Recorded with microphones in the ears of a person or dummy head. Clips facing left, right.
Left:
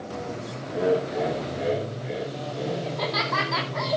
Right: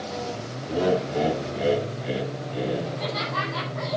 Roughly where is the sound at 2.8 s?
Left.